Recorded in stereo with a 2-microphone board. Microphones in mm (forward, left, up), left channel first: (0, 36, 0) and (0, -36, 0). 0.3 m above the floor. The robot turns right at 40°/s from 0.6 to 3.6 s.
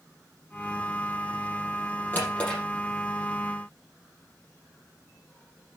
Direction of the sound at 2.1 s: 30° left (ahead or behind).